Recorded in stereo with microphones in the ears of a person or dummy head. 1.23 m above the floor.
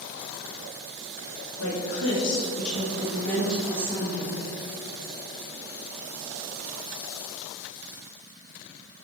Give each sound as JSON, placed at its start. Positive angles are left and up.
{"t": 1.6, "sound": "a woman speaking", "side_deg": 85, "distance_m": 2.0}